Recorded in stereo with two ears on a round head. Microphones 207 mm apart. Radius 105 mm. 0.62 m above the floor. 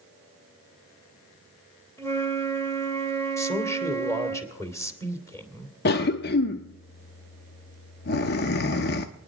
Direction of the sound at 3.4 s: 15° left (ahead or behind).